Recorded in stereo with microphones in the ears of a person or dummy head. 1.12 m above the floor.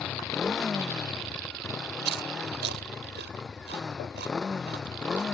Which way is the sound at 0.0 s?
5° left (ahead or behind).